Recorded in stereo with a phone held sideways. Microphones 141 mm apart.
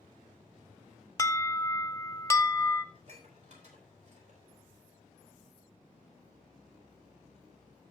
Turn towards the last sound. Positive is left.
turn(degrees=-55)  # may be behind; listen again after turning